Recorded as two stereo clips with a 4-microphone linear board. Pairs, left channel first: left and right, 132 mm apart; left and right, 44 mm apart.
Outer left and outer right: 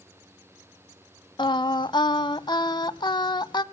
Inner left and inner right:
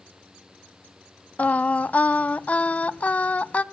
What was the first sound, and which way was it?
Singing, 35° left (ahead or behind).